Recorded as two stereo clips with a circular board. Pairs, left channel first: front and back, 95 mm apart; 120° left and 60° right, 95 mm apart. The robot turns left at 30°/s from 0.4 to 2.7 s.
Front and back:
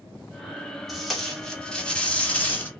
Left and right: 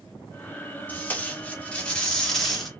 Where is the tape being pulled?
90° left, 1.1 m; by 2.7 s 35° left, 1.1 m.